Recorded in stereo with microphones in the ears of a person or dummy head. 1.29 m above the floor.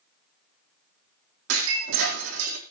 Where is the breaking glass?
70° right (ahead or behind), 4 m.